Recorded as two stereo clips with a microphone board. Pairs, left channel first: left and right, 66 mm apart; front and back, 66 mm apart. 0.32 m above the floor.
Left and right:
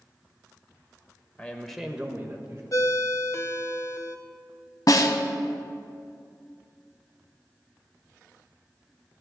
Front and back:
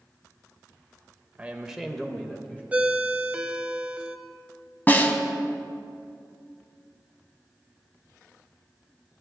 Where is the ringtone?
110° left, 0.7 m.